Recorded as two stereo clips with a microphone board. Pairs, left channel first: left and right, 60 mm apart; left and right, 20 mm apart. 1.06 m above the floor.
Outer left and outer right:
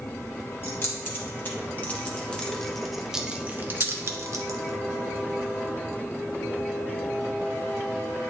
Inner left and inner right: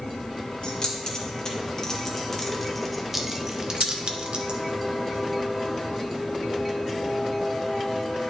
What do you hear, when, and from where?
0.6 s keys jangling: 40° left (ahead or behind), 1.7 m; by 4.8 s 70° right (ahead or behind), 1.0 m